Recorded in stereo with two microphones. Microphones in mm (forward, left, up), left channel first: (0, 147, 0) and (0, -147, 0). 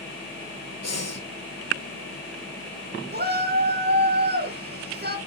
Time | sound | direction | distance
0.8 | breathing | 60° left (ahead or behind) | 0.9 m
3.1 | a shout | 35° right (ahead or behind) | 1.5 m